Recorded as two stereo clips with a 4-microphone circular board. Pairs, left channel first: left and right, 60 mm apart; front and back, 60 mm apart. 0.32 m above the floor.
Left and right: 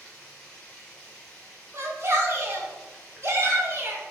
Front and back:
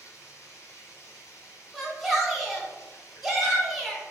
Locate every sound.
0.0 s running water: 10° left, 1.3 m
1.7 s a shout: 90° right, 1.1 m